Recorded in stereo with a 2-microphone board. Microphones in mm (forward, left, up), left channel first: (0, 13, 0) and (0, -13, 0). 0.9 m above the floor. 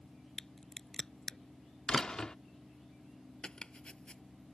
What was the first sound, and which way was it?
A crack, 20° left (ahead or behind).